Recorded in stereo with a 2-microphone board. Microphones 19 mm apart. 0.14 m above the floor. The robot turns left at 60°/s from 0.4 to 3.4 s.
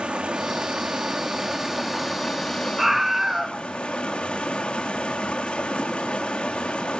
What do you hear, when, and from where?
0.0 s running water: 70° right, 4 m; by 7.0 s 110° left, 4 m
2.8 s a scream: 20° right (ahead or behind), 1.4 m; by 3.6 s 25° right (ahead or behind), 1.4 m